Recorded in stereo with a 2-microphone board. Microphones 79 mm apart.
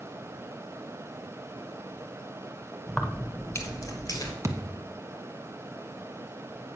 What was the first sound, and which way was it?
Keys jangling, centre (ahead or behind).